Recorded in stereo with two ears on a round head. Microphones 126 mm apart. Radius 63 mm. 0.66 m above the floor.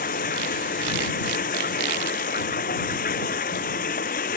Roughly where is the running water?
Left.